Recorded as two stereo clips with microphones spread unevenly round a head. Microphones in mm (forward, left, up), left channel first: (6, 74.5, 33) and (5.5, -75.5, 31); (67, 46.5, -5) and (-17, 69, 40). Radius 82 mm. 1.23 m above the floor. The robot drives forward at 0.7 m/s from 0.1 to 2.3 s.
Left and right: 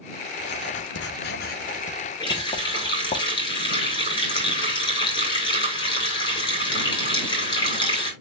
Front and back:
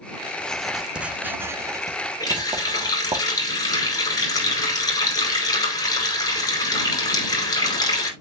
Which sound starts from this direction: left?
Writing, at 0.4 s.